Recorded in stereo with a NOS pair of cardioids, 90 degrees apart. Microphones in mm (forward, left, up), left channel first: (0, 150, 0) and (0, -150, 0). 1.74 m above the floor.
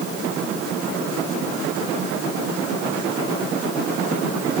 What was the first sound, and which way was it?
Only background noise.